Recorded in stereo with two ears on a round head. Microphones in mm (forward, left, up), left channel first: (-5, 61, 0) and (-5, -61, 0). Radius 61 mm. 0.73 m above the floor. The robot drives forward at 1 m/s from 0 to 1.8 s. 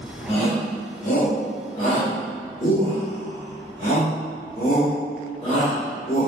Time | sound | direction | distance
0.3 | a shout | 45° left (ahead or behind) | 1.3 m